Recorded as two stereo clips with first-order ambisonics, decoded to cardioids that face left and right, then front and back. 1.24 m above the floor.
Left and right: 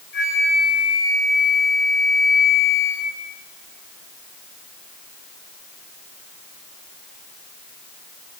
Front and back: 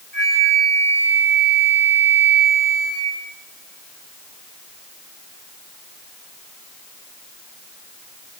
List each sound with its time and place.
0.1 s a flute: 60° left, 9 m